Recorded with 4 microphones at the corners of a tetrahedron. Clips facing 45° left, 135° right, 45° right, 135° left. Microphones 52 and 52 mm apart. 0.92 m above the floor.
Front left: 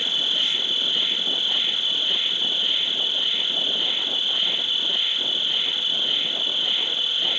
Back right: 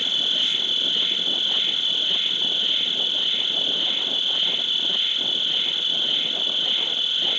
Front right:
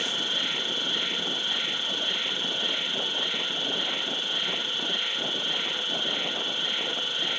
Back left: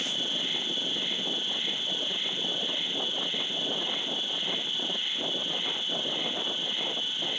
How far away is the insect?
About 3 m.